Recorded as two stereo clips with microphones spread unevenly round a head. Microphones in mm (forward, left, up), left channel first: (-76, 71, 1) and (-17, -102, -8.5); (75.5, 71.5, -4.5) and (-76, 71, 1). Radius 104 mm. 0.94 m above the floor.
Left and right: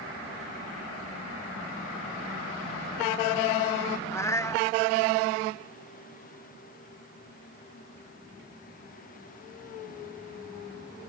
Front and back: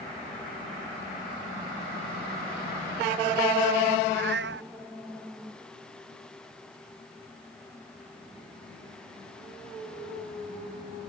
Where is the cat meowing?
175° right.